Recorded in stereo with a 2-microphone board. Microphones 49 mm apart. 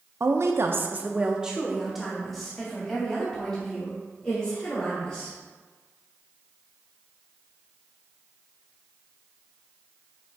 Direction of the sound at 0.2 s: 70° right (ahead or behind).